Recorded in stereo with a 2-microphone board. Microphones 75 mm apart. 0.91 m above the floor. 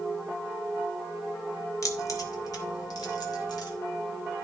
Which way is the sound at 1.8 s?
50° left (ahead or behind).